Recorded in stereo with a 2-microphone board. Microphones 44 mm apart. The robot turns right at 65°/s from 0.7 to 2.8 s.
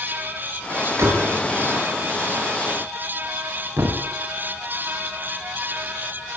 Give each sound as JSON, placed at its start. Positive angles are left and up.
{"t": 1.0, "sound": "a door slam", "side_deg": -75, "distance_m": 6.5}
{"t": 3.8, "sound": "a thud", "side_deg": -55, "distance_m": 3.5}